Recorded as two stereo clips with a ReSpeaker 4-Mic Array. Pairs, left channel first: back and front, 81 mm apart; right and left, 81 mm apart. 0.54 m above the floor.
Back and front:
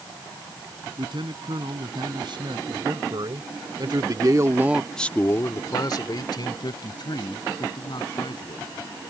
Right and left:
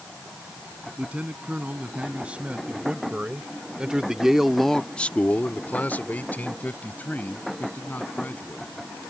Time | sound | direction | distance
1.0 | a man speaking | 15° left | ?